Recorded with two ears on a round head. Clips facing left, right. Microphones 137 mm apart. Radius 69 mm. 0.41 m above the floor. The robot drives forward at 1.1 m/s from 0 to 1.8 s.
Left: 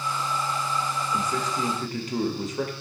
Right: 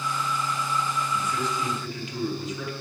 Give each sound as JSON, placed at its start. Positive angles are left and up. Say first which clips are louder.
{"t": 1.1, "sound": "a man speaking", "louder": "left 1 dB", "side_deg": 30, "distance_m": 1.7}